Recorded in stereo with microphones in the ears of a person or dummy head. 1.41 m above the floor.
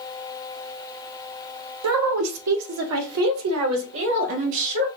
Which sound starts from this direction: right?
A woman speaking, at 1.8 s.